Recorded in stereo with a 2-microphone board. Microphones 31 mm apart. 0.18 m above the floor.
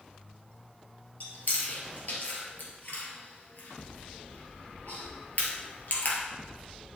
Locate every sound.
1.2 s chewing: 55° left (ahead or behind), 2.5 m